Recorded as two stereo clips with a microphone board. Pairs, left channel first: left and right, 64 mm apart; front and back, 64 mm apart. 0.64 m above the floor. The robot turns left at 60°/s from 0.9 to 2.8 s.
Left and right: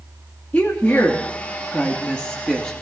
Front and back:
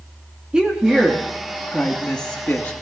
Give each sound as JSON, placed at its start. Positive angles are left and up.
{"t": 0.5, "sound": "a woman speaking", "azimuth_deg": 120, "distance_m": 1.2}